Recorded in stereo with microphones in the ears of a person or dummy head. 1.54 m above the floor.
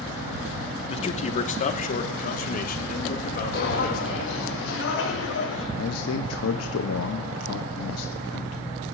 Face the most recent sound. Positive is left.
turn(degrees=80)